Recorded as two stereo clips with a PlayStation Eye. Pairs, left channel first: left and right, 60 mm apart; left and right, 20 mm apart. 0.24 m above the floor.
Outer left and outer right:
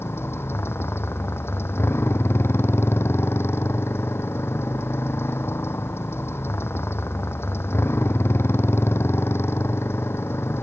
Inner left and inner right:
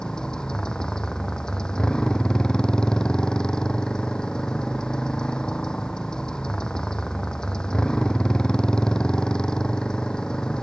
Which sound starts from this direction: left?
A motorcycle, at 0.0 s.